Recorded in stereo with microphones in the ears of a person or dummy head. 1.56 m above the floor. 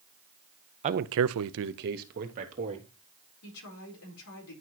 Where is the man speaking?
40° right (ahead or behind), 0.6 m; by 2.9 s 35° right (ahead or behind), 1.8 m.